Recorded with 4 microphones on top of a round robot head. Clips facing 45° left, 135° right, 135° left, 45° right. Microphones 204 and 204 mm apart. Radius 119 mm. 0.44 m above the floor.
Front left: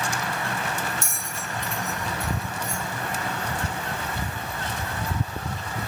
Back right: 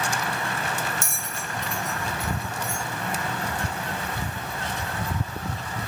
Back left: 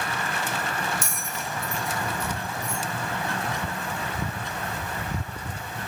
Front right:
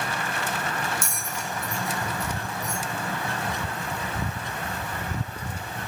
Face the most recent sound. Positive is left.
turn(degrees=-170)